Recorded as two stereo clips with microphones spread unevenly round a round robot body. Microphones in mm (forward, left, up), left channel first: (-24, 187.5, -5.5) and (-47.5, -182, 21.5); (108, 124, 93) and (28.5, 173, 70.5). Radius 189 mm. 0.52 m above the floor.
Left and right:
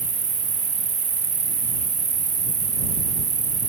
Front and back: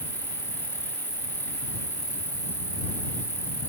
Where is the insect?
165° right.